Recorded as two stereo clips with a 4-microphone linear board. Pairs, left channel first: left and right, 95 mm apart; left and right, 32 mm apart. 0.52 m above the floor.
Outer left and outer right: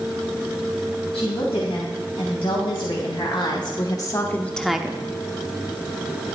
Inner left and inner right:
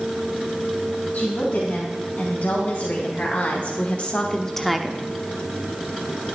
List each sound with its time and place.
1.1 s a woman speaking: 75° left (ahead or behind), 3.5 m; by 5.0 s 20° right (ahead or behind), 0.9 m